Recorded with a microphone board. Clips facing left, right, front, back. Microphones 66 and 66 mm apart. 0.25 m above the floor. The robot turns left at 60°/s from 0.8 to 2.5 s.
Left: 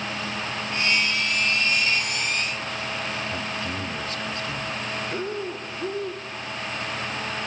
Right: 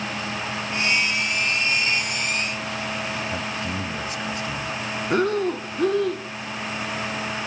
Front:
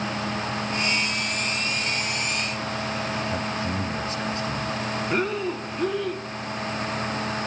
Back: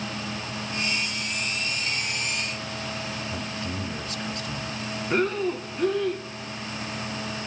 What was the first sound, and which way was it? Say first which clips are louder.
A man speaking: right 2 dB, front 5 dB; 30° right.